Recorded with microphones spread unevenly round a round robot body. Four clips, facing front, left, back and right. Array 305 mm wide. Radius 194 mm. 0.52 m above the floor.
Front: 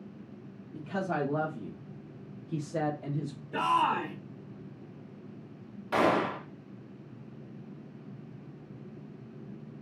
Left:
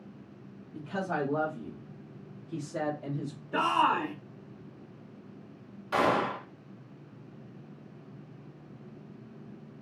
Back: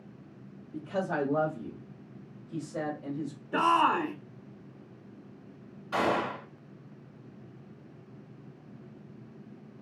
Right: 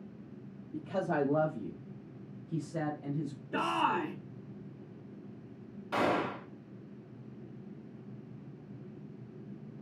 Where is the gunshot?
15° left, 1.0 m.